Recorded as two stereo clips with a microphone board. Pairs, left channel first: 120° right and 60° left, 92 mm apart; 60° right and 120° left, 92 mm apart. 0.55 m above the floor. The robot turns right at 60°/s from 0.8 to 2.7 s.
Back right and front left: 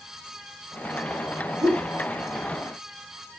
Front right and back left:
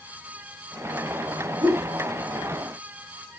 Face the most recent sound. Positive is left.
turn(degrees=140)